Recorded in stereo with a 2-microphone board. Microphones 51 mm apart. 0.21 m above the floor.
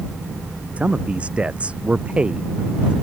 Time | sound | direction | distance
0.8 | a man speaking | 25° right (ahead or behind) | ?